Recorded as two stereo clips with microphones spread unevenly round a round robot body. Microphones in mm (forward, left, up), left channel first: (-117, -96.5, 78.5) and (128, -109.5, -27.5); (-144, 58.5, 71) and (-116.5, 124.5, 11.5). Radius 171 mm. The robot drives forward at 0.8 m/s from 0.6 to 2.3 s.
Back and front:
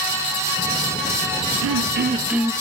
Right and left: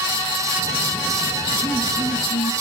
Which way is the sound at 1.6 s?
40° right.